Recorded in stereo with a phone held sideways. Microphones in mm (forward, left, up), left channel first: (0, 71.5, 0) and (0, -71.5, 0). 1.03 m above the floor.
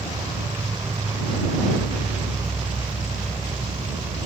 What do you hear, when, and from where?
0.0 s an insect: 40° right (ahead or behind)